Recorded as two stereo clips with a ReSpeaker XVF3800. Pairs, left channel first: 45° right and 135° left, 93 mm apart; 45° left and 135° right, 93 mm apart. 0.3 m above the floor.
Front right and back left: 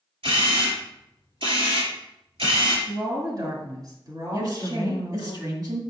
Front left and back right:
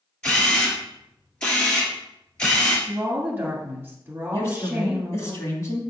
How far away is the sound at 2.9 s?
About 2 m.